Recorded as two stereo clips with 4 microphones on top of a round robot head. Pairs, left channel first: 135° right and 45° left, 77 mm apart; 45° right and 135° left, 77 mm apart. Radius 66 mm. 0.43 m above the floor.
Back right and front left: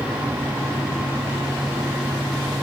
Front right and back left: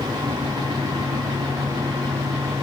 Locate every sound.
Only background noise.